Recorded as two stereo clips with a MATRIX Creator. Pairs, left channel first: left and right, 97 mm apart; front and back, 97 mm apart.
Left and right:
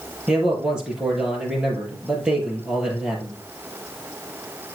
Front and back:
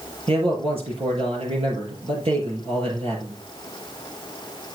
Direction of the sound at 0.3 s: 170° right.